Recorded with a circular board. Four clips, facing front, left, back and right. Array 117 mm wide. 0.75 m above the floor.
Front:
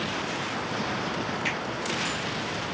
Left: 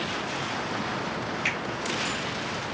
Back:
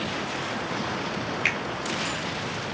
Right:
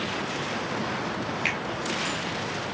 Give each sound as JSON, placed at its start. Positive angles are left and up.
{"t": 1.4, "sound": "a finger snap", "azimuth_deg": -165, "distance_m": 1.5}